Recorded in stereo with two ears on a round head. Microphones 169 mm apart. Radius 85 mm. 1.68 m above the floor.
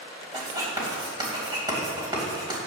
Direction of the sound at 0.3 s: 25° right (ahead or behind).